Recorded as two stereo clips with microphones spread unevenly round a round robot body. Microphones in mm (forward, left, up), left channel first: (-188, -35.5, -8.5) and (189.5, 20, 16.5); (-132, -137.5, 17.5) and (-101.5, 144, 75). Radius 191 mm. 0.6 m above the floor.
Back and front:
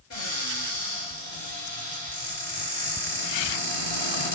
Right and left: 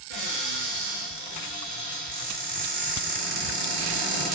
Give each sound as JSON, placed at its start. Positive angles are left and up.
{"t": 0.1, "sound": "a cupboard door", "azimuth_deg": 135, "distance_m": 4.5}